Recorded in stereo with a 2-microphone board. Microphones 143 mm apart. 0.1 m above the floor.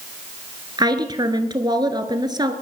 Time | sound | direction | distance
0.8 | a woman speaking | 30° right (ahead or behind) | 1.2 m